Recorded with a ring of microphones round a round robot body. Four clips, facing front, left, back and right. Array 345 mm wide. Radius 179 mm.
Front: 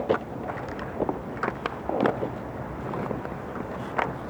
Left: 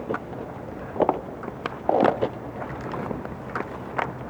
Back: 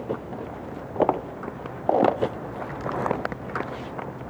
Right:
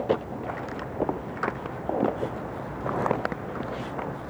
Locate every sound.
Only background noise.